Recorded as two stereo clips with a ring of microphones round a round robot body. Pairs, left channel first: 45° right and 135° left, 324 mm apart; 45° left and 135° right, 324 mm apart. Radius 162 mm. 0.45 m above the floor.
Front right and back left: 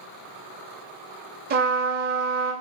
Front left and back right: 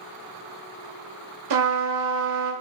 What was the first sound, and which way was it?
A trumpet, 165° right.